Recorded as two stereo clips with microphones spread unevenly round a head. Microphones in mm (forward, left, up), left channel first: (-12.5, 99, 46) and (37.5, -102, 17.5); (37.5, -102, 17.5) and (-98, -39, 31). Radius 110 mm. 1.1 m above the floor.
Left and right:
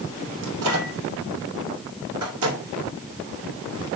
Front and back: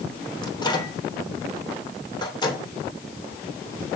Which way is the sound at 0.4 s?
90° right.